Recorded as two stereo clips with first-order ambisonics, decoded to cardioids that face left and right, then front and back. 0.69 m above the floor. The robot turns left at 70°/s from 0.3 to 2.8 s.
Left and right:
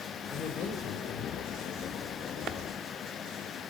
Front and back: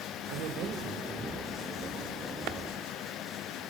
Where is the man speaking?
160° left, 3 m; by 1.6 s 70° left, 3 m.